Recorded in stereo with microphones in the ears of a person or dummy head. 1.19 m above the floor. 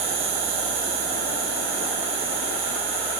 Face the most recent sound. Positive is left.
turn(degrees=-75)  # may be behind; listen again after turning